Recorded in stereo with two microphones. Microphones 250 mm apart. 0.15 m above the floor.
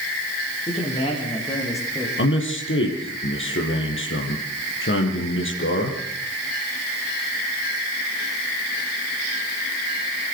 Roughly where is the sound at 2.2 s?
Left.